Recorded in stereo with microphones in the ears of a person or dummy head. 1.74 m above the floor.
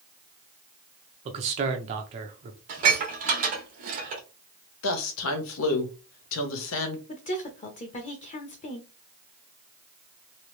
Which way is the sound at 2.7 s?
45° right (ahead or behind).